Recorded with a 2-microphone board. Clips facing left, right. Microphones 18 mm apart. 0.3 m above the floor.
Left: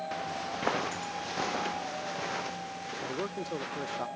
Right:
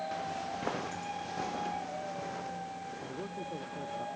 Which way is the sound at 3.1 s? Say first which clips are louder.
Left 6 dB; 85° left.